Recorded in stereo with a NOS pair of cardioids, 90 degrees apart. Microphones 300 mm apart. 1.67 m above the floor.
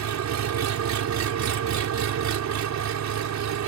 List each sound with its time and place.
0.0 s an engine running: 65° right